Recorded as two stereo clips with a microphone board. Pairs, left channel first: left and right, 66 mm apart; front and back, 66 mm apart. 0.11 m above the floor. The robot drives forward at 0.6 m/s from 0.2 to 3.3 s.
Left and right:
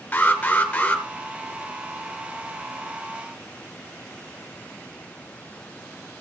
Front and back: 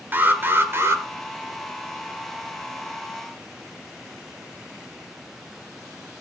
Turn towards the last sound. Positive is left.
turn(degrees=165)